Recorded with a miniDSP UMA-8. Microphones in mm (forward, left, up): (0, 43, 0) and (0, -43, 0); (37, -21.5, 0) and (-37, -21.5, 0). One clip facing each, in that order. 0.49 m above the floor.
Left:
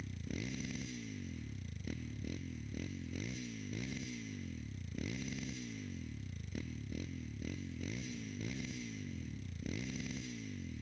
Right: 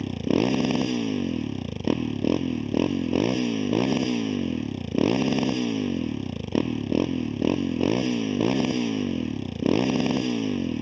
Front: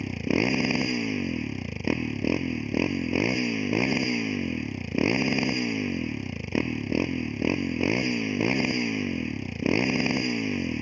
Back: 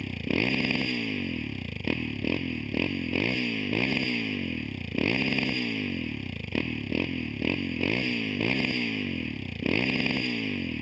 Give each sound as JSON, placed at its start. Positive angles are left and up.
{"t": 0.0, "sound": "a motorcycle", "azimuth_deg": -75}